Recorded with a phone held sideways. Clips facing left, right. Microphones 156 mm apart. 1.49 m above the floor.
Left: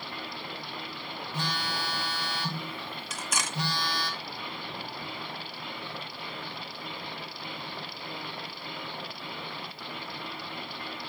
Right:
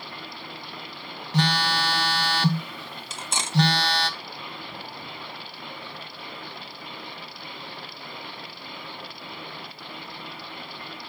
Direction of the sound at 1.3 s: 85° right.